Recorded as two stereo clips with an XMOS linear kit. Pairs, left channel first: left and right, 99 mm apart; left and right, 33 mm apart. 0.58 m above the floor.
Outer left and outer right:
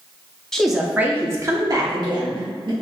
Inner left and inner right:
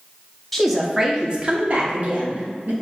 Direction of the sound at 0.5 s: 5° left (ahead or behind).